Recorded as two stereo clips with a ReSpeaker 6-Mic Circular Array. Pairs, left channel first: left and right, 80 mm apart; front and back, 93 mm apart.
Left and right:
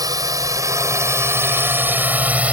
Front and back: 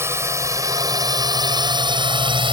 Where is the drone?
120° right; by 2.5 s 165° right.